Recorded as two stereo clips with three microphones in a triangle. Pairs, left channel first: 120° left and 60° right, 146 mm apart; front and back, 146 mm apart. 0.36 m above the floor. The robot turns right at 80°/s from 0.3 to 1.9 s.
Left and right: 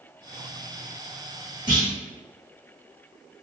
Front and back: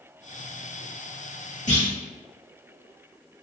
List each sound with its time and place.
1.7 s a clunk: 10° right, 1.2 m; by 1.9 s 5° left, 1.2 m